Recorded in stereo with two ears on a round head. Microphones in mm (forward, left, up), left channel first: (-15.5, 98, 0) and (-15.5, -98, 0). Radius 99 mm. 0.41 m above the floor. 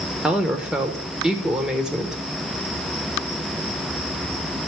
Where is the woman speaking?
5° right (ahead or behind), 0.9 m.